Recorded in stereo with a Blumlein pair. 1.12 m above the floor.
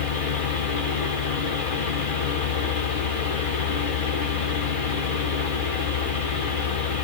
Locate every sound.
0.0 s a fan: 50° left, 2 m